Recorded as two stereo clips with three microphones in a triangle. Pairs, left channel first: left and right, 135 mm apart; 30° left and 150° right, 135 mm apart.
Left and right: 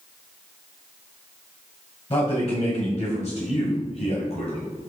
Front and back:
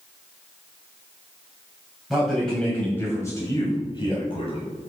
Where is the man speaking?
120° left, 1.9 m; by 4.9 s 55° left, 2 m.